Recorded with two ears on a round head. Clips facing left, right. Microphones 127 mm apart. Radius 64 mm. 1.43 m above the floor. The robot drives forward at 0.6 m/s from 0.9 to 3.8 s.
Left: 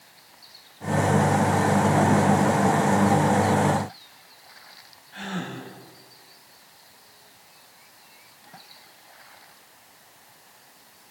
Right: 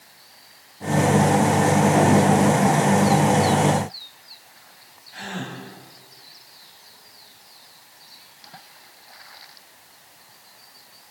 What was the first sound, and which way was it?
A gasp, 15° right (ahead or behind).